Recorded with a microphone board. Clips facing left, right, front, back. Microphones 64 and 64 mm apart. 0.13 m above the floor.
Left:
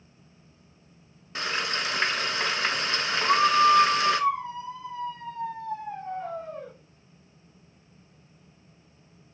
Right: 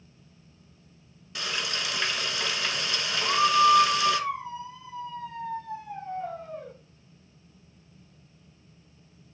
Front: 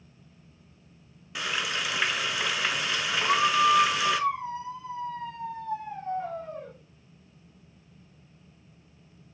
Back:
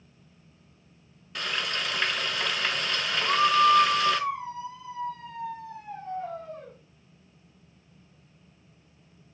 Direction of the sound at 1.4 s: 80° left.